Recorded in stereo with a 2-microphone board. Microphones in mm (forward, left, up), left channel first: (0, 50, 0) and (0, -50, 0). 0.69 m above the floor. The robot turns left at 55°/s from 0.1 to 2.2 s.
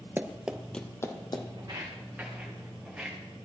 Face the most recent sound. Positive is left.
turn(degrees=-5)  # may be behind; listen again after turning